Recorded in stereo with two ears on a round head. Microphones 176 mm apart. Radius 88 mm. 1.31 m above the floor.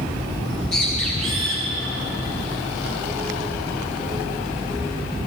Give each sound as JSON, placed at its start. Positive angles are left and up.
{"t": 0.5, "sound": "a bird", "side_deg": 0, "distance_m": 4.0}